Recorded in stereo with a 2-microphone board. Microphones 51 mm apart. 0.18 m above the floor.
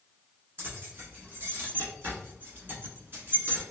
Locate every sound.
0.6 s keys jangling: 40° right (ahead or behind), 1.5 m